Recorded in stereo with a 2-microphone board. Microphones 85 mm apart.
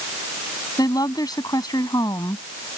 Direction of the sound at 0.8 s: 50° left (ahead or behind).